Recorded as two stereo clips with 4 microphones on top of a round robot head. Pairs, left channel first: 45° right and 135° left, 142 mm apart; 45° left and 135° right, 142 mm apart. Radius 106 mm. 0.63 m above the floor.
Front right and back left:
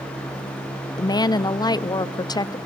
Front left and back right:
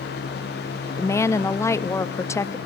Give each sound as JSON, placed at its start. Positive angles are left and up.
{"t": 1.0, "sound": "a woman speaking", "azimuth_deg": -10, "distance_m": 0.7}